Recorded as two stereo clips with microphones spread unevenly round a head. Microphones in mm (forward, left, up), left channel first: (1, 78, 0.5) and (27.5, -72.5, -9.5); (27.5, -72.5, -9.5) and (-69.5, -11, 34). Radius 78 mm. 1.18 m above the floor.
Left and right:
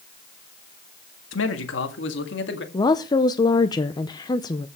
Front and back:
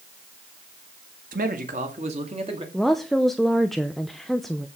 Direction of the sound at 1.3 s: 110° left.